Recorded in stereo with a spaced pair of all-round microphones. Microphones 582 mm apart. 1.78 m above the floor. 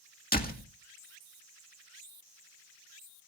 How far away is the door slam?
About 1.9 m.